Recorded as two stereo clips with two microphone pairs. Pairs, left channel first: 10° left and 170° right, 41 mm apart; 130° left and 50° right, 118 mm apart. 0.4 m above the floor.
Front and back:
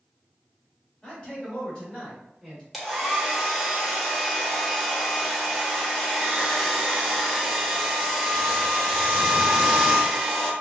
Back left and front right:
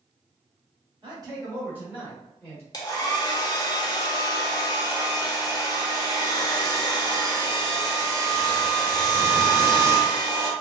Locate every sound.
1.0 s a man speaking: 45° right, 1.6 m; by 2.6 s 80° left, 1.4 m
2.7 s a hair dryer: 105° left, 0.7 m